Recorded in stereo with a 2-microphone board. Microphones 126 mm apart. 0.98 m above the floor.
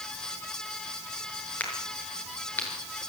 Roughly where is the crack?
Centre.